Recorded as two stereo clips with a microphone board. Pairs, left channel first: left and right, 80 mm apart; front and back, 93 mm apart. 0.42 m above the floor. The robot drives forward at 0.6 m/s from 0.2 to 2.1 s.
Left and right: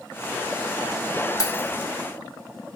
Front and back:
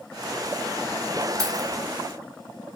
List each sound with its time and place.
1.4 s keys jangling: 135° left, 1.8 m; by 1.7 s 140° left, 1.9 m